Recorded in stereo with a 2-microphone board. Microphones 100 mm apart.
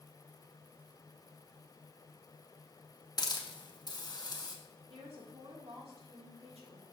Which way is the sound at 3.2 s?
40° left (ahead or behind).